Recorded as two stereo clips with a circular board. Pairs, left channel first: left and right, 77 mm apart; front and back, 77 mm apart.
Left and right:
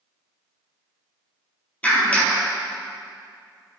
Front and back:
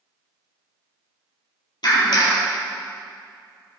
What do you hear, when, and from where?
1.8 s a clap: 20° left, 4 m